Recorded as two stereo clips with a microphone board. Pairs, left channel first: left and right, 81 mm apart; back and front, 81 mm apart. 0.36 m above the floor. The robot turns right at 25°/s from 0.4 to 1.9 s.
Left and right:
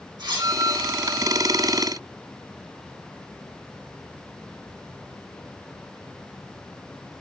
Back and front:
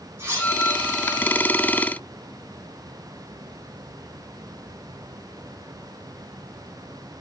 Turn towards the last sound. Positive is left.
turn(degrees=-20)